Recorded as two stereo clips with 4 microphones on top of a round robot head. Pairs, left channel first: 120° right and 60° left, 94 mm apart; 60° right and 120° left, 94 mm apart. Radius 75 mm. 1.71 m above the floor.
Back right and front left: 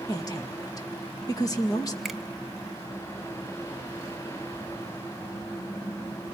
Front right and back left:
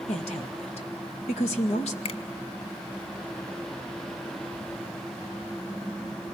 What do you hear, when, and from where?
0.1 s a woman speaking: 70° right, 2 m
2.0 s a finger snap: 30° right, 1.1 m